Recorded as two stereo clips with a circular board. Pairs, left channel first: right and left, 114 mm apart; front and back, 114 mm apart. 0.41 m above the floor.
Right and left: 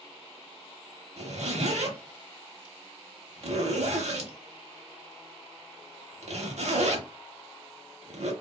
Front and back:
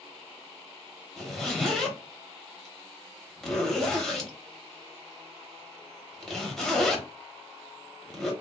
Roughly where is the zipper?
Left.